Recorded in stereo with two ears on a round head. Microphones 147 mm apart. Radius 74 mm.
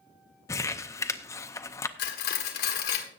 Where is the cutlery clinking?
65° left (ahead or behind), 1.4 m.